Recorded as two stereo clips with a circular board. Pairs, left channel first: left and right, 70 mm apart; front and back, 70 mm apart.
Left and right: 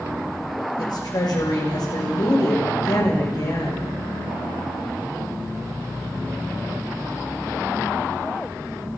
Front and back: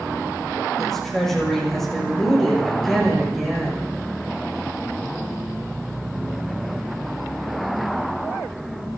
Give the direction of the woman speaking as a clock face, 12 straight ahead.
9 o'clock.